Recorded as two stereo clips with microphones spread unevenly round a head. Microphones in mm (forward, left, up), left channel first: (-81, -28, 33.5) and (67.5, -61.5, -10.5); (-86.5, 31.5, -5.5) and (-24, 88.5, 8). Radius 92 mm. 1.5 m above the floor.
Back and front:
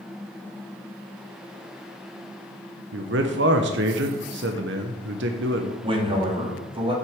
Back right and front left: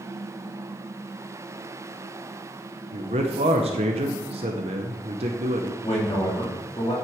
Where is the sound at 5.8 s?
70° right, 3 m.